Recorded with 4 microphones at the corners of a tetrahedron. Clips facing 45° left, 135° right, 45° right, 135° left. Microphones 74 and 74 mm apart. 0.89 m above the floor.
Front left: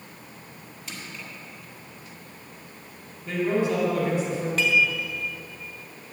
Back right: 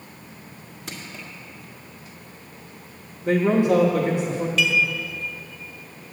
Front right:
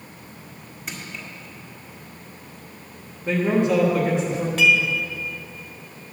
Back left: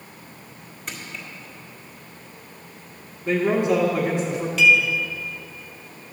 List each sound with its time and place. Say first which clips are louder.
0.9 s crushing: back right 2 dB, even; 130° right, 2 m
3.2 s a man speaking: back right 6 dB, even; 135° right, 1.2 m
4.6 s dishes clattering: even, back left 2 dB; straight ahead, 1.6 m